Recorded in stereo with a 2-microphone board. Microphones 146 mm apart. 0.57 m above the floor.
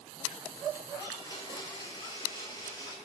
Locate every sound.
1.0 s a blender: 25° left (ahead or behind), 5.5 m